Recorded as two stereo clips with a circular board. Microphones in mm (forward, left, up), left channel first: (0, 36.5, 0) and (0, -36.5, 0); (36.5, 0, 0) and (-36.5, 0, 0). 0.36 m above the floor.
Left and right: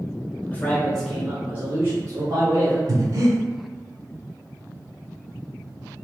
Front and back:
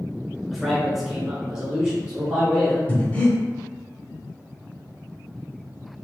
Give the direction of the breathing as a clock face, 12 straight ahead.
2 o'clock.